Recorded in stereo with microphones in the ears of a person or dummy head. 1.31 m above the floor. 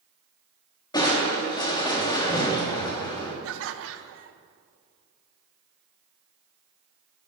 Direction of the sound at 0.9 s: 25° left (ahead or behind).